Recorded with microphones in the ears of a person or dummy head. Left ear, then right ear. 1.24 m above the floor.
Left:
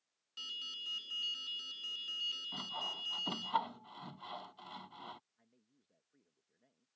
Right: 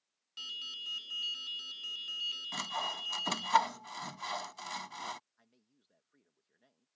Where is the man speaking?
40° right (ahead or behind).